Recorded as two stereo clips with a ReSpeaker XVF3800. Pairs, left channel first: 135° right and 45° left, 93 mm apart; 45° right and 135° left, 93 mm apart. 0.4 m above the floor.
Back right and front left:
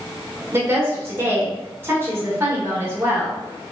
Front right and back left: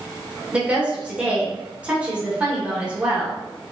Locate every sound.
0.5 s a woman speaking: 75° left, 1.2 m